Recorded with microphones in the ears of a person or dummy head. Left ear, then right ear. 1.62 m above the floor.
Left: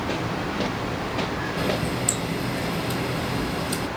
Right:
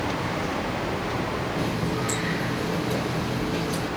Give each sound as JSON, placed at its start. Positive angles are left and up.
{"t": 1.6, "sound": "a running tap", "side_deg": 35, "distance_m": 1.0}